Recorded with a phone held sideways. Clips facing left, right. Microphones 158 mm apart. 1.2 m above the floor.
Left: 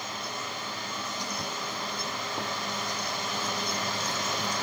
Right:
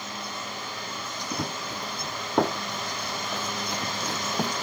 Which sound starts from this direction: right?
Running footsteps, at 1.3 s.